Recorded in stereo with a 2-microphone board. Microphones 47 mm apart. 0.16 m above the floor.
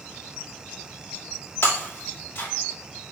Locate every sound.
1.6 s breaking glass: 55° left (ahead or behind), 3 m